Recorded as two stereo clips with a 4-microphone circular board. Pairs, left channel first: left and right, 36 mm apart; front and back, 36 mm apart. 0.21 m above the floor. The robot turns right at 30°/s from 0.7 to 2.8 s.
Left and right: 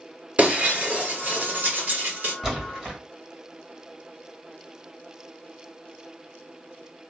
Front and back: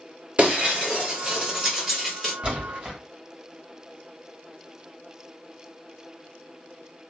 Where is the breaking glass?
140° right, 1.4 m; by 2.4 s 90° right, 1.4 m.